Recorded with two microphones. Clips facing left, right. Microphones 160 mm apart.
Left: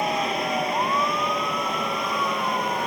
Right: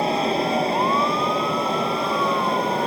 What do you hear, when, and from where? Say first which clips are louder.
0.0 s an aircraft: right 4 dB; 30° right (ahead or behind)